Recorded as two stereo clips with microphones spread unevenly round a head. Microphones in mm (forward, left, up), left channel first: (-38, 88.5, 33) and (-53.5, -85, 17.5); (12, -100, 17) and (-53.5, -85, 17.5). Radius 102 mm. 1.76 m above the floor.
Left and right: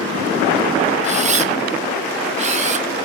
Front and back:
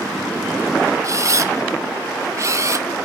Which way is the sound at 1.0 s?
150° right.